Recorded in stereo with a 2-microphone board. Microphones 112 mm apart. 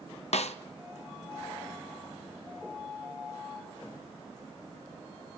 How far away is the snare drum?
About 0.5 m.